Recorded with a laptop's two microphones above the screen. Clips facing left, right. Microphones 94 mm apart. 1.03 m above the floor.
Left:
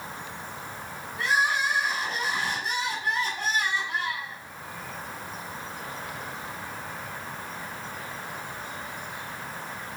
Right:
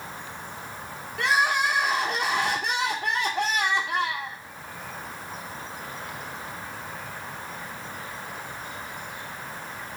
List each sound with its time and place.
1.2 s crying: 70° right (ahead or behind), 2 m